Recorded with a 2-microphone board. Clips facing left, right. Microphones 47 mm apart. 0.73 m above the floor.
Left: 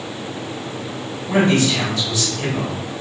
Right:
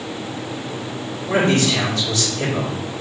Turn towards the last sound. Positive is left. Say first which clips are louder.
# left 1 dB
turn(degrees=-60)  # may be behind; listen again after turning